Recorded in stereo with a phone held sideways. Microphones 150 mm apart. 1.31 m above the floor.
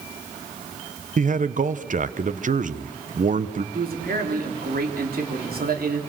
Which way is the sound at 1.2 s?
60° right (ahead or behind).